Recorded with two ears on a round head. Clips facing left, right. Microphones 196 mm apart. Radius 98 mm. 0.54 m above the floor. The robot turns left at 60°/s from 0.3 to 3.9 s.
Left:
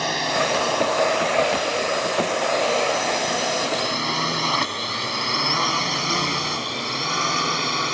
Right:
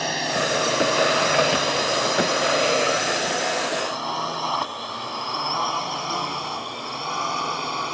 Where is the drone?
5° right (ahead or behind); by 8.0 s 25° left (ahead or behind).